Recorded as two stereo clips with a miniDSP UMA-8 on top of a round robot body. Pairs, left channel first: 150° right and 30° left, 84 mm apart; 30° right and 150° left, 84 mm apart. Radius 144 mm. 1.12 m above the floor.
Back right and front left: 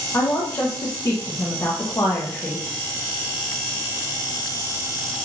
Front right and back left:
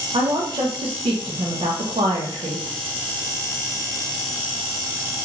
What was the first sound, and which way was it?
A woman speaking, 150° left.